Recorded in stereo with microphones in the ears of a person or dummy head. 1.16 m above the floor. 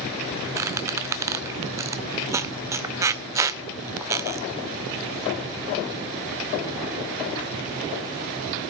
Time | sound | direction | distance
0.6 | a squeak | 15° right (ahead or behind) | 0.7 m